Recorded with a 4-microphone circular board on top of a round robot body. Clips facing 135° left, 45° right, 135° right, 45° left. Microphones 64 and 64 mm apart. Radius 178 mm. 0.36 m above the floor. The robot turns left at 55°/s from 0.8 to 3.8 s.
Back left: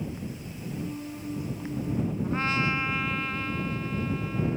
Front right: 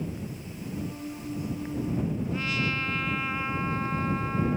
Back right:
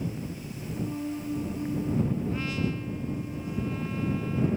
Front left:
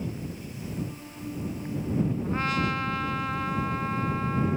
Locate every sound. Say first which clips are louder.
2.2 s a trumpet: back left 3 dB, front left 3 dB; 95° left; by 4.6 s 5° left